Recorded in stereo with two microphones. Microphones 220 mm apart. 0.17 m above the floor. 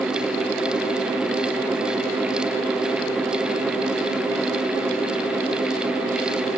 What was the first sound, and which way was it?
Only background noise.